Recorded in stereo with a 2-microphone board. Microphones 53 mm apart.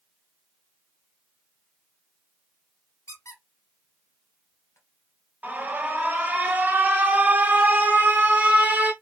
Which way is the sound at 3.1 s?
65° left (ahead or behind).